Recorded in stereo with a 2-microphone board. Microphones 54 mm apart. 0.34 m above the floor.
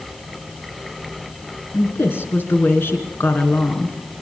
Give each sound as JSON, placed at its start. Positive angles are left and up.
{"t": 1.7, "sound": "a woman speaking", "side_deg": 45, "distance_m": 3.5}